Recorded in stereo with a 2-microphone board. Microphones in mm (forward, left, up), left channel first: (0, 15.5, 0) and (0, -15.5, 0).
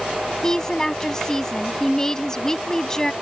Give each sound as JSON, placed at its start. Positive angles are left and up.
{"t": 0.4, "sound": "a woman speaking", "side_deg": 20}